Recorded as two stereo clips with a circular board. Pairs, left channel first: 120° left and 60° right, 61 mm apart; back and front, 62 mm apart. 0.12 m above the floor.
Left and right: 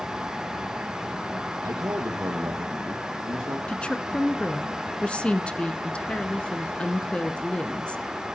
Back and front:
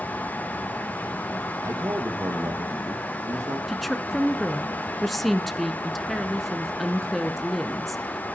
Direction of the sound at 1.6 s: 35° right.